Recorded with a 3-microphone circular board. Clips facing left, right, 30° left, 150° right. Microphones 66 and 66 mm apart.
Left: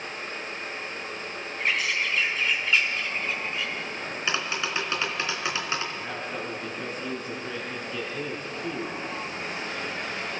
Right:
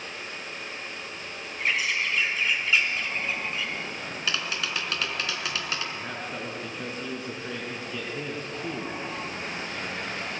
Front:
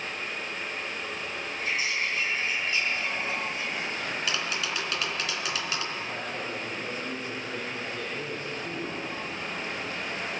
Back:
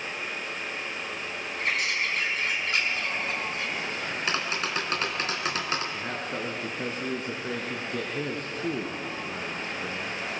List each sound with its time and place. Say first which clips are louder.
1.6 s a bird: even, back 2 dB; 175° right, 5 m
4.3 s tapping: left 2 dB, back 4 dB; 155° left, 3 m
5.9 s a man speaking: left 1 dB, back 2 dB; 175° right, 3.5 m